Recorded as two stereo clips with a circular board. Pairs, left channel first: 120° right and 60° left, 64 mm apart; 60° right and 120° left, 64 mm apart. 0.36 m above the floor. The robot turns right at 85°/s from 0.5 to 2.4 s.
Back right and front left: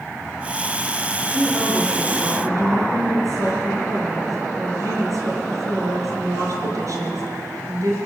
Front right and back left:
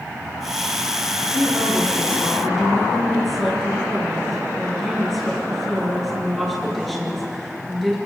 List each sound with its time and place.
1.2 s a woman speaking: 75° right, 5.5 m; by 8.0 s 30° left, 5.5 m